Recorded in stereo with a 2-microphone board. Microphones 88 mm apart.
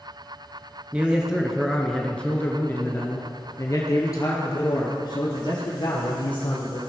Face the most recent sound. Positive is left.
turn(degrees=60)  # may be behind; listen again after turning